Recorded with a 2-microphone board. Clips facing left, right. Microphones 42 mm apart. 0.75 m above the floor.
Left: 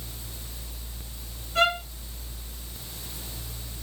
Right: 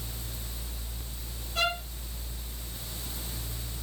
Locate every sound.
1.6 s a violin: 50° left (ahead or behind), 5 m